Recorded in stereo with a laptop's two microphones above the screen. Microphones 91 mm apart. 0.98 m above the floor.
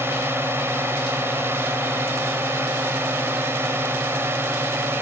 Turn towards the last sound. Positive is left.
turn(degrees=-25)  # may be behind; listen again after turning